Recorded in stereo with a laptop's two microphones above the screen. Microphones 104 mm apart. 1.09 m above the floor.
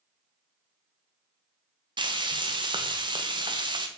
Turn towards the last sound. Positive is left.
turn(degrees=-45)  # may be behind; listen again after turning